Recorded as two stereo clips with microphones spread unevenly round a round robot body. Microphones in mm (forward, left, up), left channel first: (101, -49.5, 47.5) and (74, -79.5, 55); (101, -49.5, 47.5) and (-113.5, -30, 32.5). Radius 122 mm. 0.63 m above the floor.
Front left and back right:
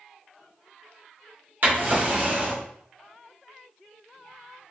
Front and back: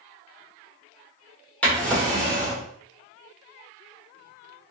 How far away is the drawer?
About 1.0 m.